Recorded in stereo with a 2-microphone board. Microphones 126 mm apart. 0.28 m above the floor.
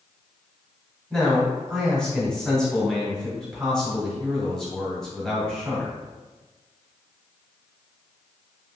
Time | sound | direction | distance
1.1 | a man speaking | 5° left (ahead or behind) | 1.5 m